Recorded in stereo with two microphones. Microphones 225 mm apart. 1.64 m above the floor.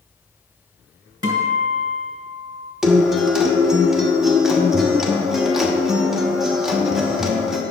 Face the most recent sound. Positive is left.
turn(degrees=0)  # may be behind; listen again after turning